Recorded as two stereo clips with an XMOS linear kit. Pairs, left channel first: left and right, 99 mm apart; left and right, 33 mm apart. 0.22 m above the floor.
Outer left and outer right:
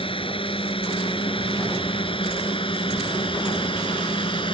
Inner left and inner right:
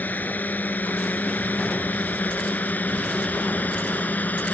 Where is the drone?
65° left (ahead or behind); by 4.5 s 60° left (ahead or behind).